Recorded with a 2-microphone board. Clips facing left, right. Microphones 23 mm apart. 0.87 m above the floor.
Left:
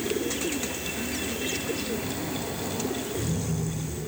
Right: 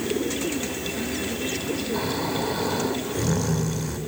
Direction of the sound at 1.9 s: 70° right (ahead or behind).